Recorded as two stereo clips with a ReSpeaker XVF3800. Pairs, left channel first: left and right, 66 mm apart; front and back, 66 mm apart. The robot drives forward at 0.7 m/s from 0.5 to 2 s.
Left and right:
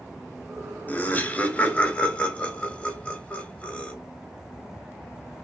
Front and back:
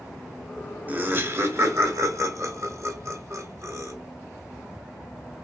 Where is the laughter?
135° left, 1.0 m; by 3.9 s 160° left, 1.5 m.